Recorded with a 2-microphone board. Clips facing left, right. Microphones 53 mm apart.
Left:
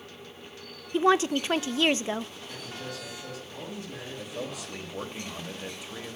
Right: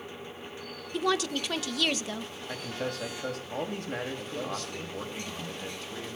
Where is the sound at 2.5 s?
60° right (ahead or behind), 2 m.